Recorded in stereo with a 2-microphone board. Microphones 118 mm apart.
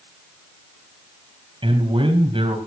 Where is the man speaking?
50° right (ahead or behind), 4 m.